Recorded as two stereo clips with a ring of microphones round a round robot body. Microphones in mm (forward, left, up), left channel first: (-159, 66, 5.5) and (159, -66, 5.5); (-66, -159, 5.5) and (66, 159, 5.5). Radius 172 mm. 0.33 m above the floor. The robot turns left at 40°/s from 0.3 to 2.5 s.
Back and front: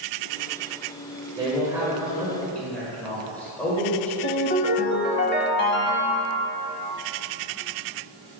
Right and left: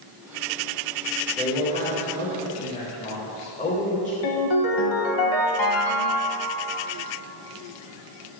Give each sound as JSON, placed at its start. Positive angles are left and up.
{"t": 1.4, "sound": "a man speaking", "azimuth_deg": -80, "distance_m": 1.3}
{"t": 4.2, "sound": "a ringtone", "azimuth_deg": -140, "distance_m": 0.9}